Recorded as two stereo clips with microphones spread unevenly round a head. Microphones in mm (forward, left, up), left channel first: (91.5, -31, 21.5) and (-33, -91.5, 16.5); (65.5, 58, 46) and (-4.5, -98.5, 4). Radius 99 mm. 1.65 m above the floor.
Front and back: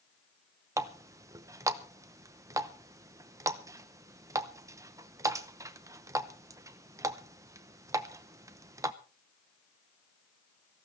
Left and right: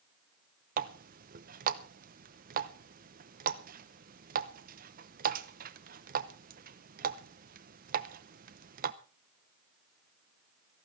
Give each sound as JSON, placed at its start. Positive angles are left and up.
{"t": 0.8, "sound": "a running tap", "azimuth_deg": -105, "distance_m": 0.7}